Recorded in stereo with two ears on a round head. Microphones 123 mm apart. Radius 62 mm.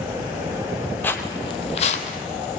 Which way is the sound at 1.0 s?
15° left (ahead or behind).